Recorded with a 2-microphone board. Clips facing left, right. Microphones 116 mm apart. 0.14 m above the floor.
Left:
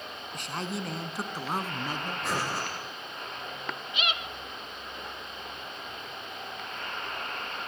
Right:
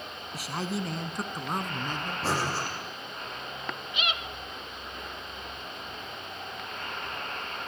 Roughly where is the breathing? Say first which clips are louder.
Right 3 dB; right.